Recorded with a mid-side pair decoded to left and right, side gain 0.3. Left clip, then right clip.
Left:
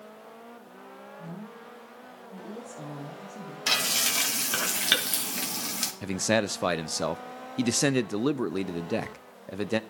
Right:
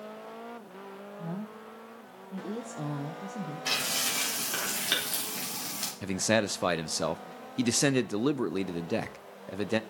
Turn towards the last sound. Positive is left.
turn(degrees=5)